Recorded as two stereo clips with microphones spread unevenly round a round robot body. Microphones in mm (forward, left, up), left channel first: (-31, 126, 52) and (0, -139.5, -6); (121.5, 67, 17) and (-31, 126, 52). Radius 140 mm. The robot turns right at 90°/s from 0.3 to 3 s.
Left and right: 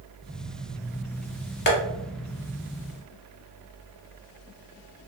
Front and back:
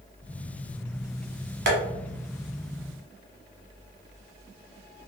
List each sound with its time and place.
1.7 s tapping: 150° left, 0.8 m; by 1.8 s 160° left, 0.8 m